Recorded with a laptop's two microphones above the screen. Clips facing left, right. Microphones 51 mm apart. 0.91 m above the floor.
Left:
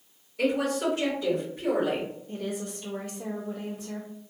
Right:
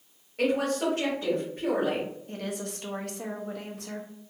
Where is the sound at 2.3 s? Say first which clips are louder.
Left 1 dB; 60° right (ahead or behind), 0.8 m.